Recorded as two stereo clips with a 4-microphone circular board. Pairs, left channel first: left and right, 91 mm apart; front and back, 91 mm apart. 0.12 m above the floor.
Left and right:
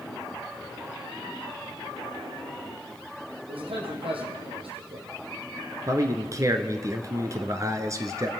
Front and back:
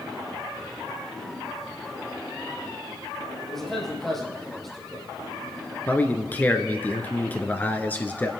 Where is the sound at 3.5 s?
85° right, 4 m.